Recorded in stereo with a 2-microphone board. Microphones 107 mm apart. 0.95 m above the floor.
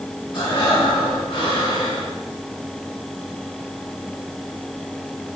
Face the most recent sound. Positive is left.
turn(degrees=50)  # may be behind; listen again after turning